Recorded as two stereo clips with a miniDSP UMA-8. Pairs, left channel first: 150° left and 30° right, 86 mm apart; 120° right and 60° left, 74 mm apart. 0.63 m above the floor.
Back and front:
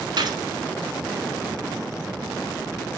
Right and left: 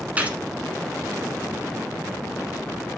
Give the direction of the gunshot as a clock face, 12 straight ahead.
12 o'clock.